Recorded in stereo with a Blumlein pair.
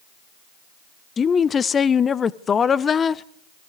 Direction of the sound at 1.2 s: 20° left.